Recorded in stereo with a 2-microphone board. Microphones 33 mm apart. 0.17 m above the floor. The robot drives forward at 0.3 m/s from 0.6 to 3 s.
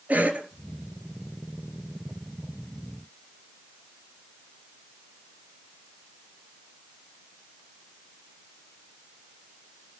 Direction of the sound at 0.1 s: 50° right (ahead or behind).